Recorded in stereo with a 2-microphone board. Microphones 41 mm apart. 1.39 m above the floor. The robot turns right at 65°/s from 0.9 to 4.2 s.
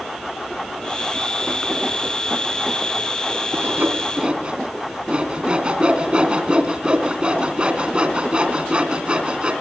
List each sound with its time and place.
3.5 s sawing: 65° right (ahead or behind), 2.5 m; by 9.5 s 30° right (ahead or behind), 2.5 m